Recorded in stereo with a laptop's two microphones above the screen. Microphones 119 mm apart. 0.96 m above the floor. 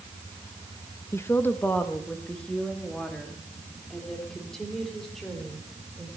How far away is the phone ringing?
I don't hear a phone ringing.